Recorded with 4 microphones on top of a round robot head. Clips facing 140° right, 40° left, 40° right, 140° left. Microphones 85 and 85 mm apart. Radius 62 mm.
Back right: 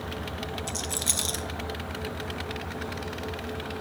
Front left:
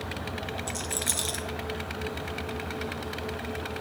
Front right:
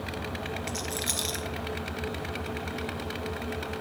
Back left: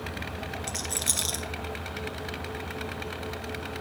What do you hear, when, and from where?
0.7 s a rattle: 165° left, 1.0 m